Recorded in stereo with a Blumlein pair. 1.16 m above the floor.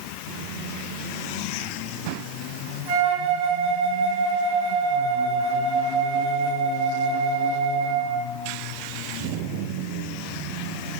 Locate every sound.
2.9 s a flute: 40° right, 3 m